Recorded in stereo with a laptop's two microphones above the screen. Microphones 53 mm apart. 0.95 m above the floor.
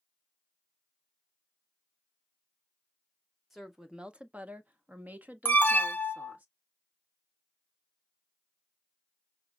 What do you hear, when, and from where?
3.5 s a woman speaking: centre (ahead or behind), 0.6 m; by 6.5 s 30° right (ahead or behind), 1.7 m
5.5 s an alarm: 35° left (ahead or behind), 0.7 m